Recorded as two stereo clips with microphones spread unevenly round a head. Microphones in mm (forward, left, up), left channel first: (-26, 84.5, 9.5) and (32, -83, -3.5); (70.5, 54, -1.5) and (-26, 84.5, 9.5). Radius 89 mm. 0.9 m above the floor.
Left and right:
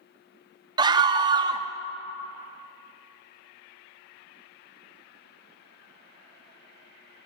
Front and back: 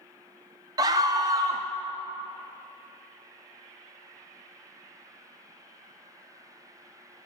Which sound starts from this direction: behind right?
A scream, at 0.8 s.